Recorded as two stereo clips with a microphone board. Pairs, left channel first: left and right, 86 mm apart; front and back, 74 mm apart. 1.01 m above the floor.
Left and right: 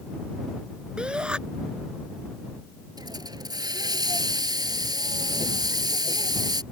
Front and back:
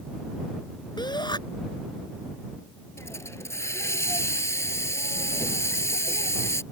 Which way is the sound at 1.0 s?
10° right.